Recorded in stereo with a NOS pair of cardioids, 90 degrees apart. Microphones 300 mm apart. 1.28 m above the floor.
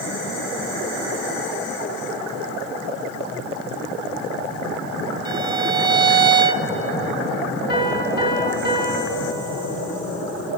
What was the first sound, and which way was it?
A violin, 10° right.